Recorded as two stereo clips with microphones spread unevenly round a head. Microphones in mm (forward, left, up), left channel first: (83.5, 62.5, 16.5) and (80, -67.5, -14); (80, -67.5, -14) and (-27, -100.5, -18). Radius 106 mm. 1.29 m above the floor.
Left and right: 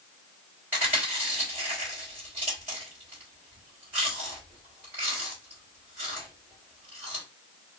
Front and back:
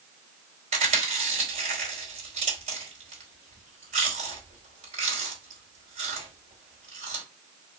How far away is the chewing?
About 1.3 m.